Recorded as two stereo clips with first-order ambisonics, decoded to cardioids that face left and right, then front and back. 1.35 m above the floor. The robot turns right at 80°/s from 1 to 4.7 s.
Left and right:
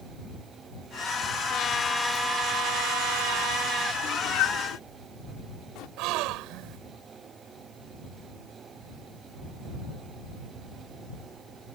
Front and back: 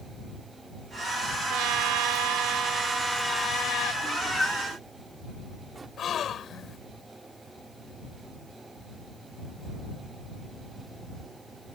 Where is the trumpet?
140° left; by 3.9 s 25° right.